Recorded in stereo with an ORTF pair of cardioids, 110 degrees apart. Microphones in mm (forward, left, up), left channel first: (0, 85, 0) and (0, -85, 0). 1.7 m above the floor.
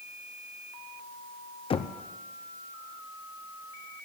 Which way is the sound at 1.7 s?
35° left.